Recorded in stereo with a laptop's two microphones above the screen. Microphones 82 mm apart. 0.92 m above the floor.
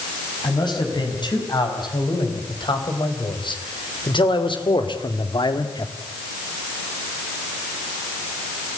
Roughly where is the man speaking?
Left.